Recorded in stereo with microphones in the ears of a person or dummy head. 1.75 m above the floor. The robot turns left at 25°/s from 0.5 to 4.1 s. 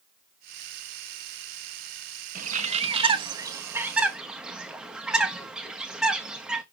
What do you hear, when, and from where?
2.4 s a bird: 50° right (ahead or behind), 1.1 m; by 6.6 s 5° right (ahead or behind), 1.1 m